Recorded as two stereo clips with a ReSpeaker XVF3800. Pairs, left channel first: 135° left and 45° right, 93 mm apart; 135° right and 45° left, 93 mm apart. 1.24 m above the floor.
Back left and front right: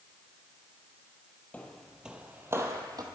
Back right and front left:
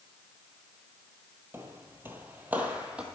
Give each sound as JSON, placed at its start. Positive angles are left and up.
{"t": 1.5, "sound": "footsteps", "azimuth_deg": 75, "distance_m": 1.4}